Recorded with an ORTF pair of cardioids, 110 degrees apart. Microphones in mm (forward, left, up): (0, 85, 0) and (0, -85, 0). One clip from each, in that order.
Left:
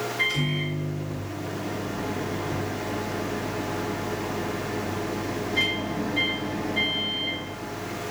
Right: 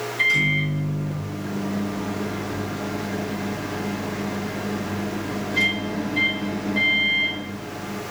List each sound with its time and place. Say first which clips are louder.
0.2 s a microwave: right 8 dB; 30° right, 1.9 m